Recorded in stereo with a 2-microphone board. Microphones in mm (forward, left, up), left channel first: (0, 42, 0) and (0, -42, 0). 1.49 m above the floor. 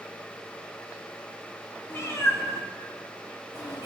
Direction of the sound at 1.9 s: 25° left (ahead or behind).